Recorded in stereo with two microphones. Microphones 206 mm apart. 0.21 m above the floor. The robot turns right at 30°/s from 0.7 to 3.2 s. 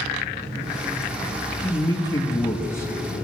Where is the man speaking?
20° left (ahead or behind), 1.0 m; by 3.2 s 10° left (ahead or behind), 1.0 m.